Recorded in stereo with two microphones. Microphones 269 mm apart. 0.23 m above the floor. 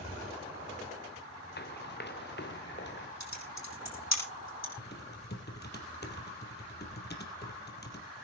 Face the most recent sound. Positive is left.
turn(degrees=40)  # may be behind; listen again after turning